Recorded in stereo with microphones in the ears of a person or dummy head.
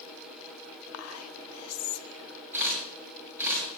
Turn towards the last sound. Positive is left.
turn(degrees=-10)  # may be behind; listen again after turning